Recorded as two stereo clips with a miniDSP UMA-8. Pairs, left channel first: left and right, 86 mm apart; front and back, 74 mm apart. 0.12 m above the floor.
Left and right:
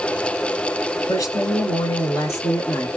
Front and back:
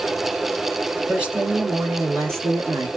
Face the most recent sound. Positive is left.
turn(degrees=145)